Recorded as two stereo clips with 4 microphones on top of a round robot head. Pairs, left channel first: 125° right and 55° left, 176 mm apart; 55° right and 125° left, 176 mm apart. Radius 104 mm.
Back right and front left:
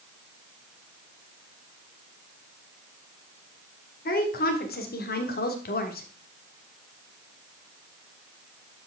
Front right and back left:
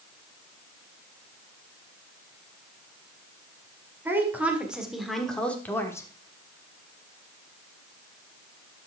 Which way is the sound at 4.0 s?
155° right.